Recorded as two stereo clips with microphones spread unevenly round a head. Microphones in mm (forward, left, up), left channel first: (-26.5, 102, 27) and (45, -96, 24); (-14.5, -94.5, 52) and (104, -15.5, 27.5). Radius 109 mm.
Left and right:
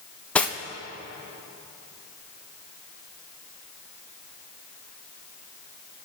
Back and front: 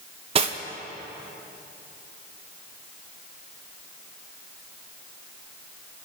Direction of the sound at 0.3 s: 35° left.